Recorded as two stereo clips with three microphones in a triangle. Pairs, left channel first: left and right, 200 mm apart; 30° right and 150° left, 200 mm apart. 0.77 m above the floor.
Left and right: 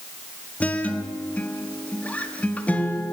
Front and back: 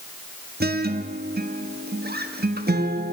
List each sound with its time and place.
0.6 s a guitar: 170° left, 1.3 m